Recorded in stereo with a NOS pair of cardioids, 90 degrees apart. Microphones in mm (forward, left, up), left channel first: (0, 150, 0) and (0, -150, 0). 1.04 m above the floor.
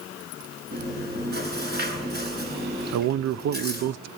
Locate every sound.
0.7 s chewing: 35° right, 8.5 m
2.9 s a man speaking: 60° right, 0.6 m